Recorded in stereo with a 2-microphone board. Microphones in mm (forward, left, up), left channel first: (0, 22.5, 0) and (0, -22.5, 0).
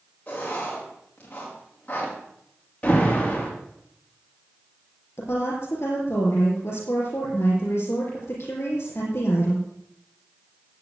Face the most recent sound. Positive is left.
turn(degrees=65)  # may be behind; listen again after turning